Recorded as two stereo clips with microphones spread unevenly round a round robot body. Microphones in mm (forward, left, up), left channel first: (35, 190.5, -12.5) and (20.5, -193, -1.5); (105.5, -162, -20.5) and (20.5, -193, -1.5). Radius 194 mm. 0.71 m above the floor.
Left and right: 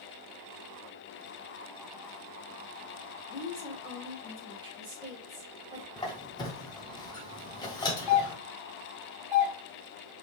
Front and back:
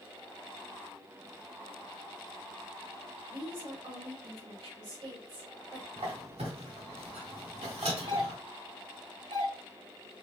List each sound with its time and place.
3.3 s a woman speaking: 170° right, 2.5 m
6.0 s a squeak: 170° left, 0.6 m
8.1 s a doorbell: 170° right, 3 m